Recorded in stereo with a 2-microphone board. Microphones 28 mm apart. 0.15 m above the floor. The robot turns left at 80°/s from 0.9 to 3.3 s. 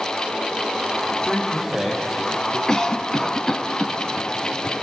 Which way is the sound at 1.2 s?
35° left (ahead or behind).